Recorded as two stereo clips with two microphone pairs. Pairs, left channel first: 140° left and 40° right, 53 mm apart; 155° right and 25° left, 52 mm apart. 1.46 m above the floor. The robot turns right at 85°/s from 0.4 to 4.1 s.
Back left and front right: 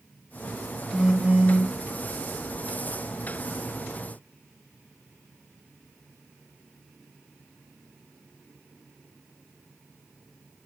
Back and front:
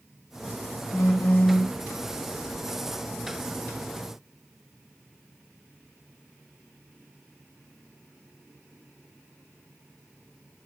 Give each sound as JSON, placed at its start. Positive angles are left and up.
{"t": 0.9, "sound": "a phone buzzing", "azimuth_deg": -140, "distance_m": 0.6}